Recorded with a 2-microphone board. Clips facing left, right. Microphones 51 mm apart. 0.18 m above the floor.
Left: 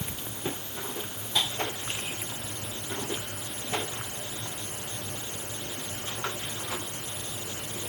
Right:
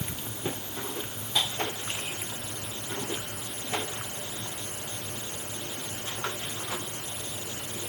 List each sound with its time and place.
Only background noise.